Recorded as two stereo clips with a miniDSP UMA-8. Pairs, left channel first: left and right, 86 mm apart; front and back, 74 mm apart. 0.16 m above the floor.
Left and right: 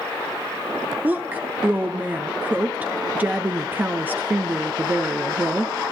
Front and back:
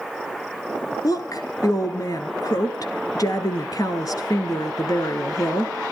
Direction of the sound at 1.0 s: 25° right.